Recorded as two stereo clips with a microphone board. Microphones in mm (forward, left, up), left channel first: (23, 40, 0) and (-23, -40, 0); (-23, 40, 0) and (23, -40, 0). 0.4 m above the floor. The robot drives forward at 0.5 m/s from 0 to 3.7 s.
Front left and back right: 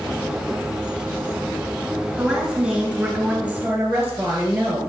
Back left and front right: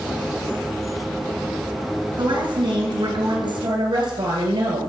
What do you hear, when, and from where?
2.2 s a woman speaking: 40° right, 3 m; by 4.9 s 55° right, 2.5 m